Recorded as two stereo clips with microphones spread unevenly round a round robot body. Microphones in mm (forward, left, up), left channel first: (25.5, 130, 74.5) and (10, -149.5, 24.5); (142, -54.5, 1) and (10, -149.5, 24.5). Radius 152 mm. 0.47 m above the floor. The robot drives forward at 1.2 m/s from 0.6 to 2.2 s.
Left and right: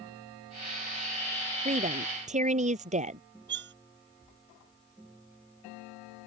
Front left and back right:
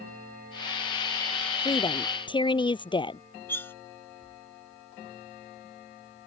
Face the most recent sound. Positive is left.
turn(degrees=-40)